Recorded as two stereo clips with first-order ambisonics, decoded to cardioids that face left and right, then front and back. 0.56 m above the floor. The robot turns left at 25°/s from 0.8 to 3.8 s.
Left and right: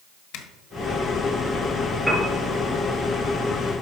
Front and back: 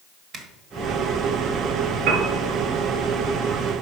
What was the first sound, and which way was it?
A zipper, 115° left.